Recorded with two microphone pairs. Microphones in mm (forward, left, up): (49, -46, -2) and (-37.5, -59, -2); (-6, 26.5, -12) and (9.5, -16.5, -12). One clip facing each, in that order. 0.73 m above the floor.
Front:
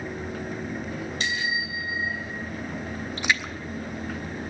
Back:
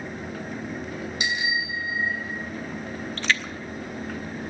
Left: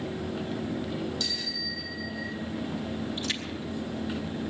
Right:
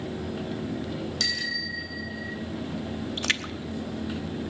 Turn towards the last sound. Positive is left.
turn(degrees=-65)